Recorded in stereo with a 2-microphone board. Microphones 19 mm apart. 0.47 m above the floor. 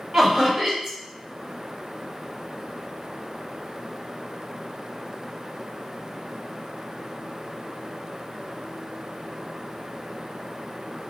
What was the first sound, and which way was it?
Laughter, 30° right (ahead or behind).